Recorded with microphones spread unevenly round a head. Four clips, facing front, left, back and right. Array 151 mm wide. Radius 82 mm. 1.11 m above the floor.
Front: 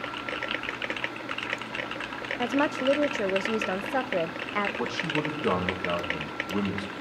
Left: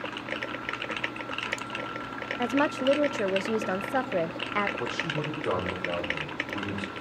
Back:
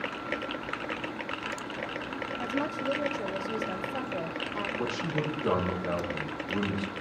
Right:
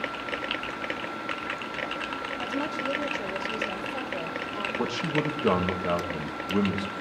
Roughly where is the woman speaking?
Ahead left.